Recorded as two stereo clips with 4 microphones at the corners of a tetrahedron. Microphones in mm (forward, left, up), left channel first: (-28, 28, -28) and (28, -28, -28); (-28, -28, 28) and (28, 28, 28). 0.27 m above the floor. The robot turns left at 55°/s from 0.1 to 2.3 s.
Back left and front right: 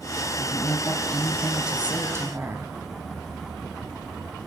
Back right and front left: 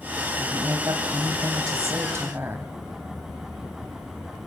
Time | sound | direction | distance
0.3 | a woman speaking | 100° left | 2 m